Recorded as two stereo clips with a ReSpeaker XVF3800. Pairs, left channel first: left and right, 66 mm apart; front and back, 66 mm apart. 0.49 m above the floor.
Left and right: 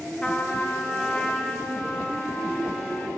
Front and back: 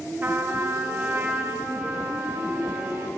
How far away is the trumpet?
About 0.5 m.